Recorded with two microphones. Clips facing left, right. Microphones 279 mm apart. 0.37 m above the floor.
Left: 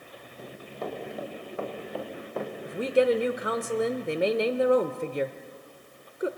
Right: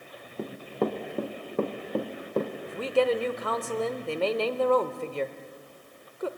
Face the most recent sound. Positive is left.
turn(degrees=20)  # may be behind; listen again after turning